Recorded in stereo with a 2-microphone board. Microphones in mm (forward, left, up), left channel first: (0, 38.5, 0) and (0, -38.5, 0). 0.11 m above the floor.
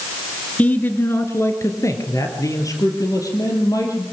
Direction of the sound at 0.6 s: 20° left (ahead or behind).